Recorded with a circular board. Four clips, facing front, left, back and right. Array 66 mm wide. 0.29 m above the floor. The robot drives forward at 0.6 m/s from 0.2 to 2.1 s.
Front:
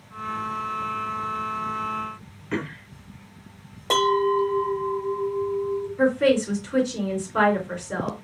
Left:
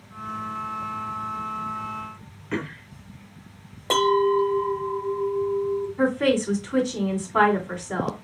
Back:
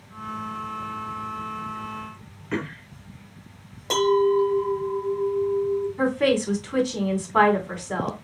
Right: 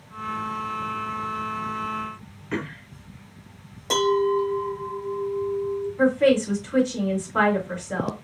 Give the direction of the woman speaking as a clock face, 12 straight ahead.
7 o'clock.